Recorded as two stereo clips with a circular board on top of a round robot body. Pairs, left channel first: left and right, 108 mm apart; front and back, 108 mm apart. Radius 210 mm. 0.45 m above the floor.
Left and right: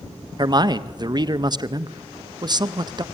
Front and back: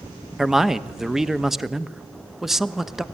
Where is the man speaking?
95° right, 1.1 m.